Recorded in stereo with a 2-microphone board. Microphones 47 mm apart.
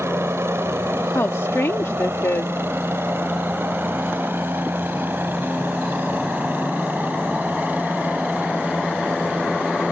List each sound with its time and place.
0.0 s a helicopter: 70° right (ahead or behind); by 9.9 s 35° right (ahead or behind)
1.1 s a woman speaking: 70° left (ahead or behind)